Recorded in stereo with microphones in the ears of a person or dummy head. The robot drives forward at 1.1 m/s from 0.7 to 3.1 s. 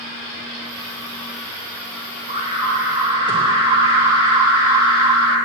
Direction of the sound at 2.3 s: 30° right (ahead or behind).